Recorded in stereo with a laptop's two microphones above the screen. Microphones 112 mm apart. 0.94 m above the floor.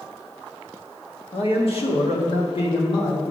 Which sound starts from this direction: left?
A man speaking, at 1.3 s.